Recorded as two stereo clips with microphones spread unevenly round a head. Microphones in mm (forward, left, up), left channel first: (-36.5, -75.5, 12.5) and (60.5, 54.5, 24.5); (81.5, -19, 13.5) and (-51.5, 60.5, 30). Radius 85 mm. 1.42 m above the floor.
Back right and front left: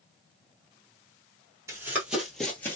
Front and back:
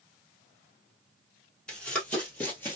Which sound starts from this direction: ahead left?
Running footsteps, at 1.7 s.